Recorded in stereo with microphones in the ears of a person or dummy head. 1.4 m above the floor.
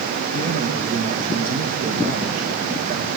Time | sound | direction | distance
0.3 | a man speaking | 45° right (ahead or behind) | 1.7 m